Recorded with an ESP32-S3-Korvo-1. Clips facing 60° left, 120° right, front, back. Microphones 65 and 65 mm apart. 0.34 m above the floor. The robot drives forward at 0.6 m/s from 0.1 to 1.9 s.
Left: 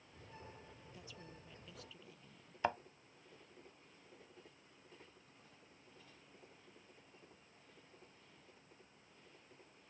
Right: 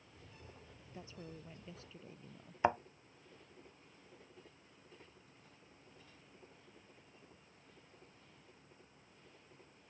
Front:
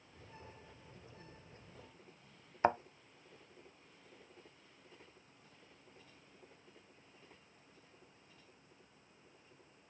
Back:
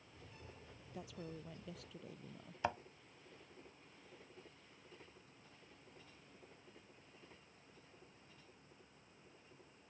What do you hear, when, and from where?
0.9 s a woman speaking: straight behind
2.6 s a thud: 50° right